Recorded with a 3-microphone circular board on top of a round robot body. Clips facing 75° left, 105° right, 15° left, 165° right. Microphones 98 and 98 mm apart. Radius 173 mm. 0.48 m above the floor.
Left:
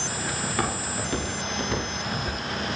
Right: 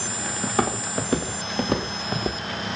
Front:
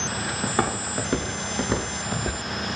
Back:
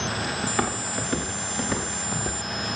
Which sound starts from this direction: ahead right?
Footsteps, at 0.4 s.